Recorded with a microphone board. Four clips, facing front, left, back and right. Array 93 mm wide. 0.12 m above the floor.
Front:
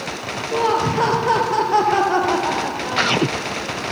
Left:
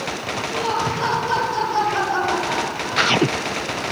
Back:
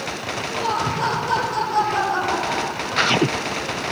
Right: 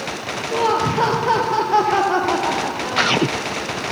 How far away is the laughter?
About 2.5 m.